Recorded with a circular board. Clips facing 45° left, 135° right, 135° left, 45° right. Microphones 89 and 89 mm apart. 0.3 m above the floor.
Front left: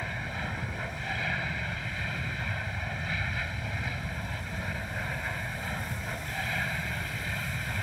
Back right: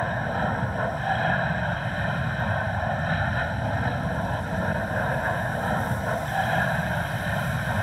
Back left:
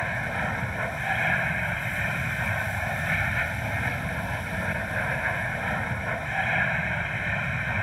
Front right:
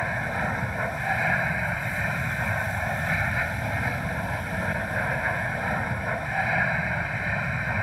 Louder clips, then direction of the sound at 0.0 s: Back right 10 dB, front right 1 dB; 125° right.